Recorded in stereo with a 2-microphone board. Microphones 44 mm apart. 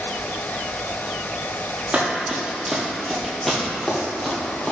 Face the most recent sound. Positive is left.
turn(degrees=20)  # may be behind; listen again after turning